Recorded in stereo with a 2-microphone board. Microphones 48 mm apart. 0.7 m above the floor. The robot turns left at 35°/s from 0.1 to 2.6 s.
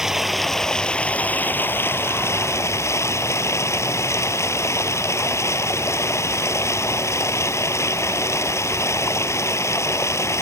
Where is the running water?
170° right; by 10.4 s 100° left.